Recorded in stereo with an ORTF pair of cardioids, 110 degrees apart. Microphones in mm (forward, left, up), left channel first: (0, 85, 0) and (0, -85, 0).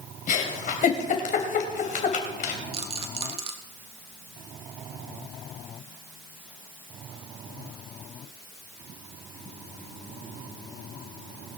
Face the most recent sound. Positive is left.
turn(degrees=-35)